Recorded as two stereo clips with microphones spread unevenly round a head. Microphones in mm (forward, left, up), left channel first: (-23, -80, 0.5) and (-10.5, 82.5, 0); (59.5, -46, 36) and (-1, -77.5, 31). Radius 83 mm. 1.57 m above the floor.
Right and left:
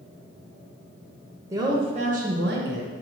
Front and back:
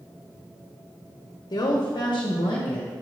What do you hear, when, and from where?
1.5 s a woman speaking: 10° left, 1.2 m; by 2.9 s 70° left, 1.4 m